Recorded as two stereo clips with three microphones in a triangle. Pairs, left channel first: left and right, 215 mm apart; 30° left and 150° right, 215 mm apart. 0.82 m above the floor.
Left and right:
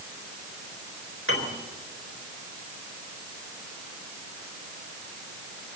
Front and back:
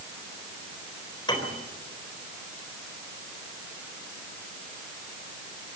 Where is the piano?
100° left, 4 m.